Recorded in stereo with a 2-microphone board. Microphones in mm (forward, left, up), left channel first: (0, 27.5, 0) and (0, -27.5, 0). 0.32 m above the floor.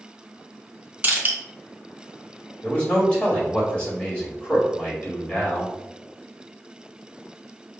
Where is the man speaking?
20° left (ahead or behind), 1.7 m.